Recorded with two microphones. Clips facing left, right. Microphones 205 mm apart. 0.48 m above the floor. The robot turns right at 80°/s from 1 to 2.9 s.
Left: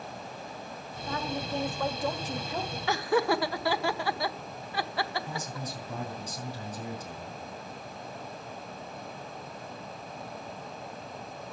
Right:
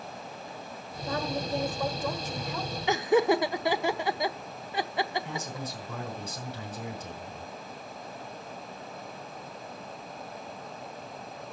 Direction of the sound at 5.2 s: 70° right (ahead or behind).